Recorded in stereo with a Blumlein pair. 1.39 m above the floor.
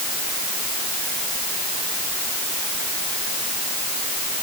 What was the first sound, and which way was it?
Only background noise.